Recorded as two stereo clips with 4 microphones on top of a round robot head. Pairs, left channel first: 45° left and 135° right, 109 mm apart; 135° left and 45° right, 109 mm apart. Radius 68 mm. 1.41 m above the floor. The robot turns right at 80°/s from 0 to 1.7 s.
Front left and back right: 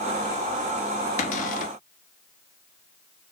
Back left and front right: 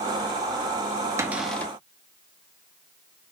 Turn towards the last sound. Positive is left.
turn(degrees=60)